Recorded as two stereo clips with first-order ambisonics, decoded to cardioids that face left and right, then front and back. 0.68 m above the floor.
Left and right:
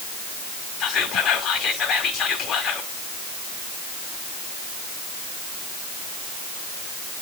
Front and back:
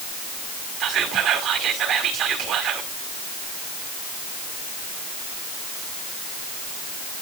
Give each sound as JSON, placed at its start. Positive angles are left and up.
{"t": 0.8, "sound": "whispering", "azimuth_deg": 135, "distance_m": 1.9}